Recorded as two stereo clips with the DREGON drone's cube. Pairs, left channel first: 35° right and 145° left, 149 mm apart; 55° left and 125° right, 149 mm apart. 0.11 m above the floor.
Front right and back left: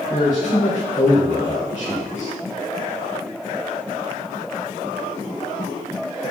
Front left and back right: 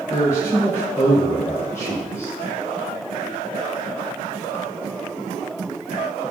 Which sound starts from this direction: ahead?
A man speaking, at 0.1 s.